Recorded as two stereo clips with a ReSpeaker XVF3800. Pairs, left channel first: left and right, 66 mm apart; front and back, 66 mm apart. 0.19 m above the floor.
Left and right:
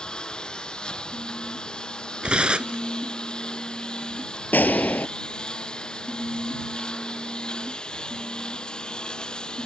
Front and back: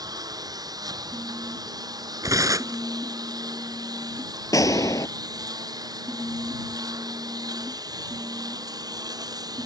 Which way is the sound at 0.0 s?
165° left.